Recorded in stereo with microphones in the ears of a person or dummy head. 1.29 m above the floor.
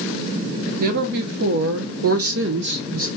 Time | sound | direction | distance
0.8 | a woman speaking | 45° right (ahead or behind) | 1.2 m